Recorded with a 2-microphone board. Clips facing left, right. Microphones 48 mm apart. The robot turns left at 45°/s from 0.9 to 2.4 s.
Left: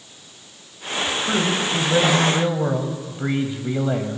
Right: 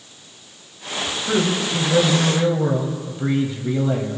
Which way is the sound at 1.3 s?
10° left (ahead or behind).